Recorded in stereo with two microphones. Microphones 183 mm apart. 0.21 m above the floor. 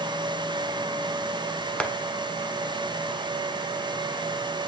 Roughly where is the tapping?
Centre.